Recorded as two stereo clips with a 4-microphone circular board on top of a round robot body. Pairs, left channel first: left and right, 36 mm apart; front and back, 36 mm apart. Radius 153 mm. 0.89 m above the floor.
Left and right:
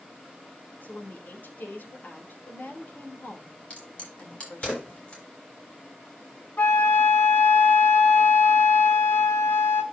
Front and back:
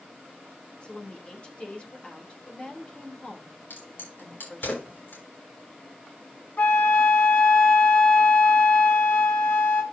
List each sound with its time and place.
0.8 s a woman speaking: 60° left, 3.5 m
3.7 s a crack: 30° left, 7 m
6.6 s a flute: 50° left, 0.7 m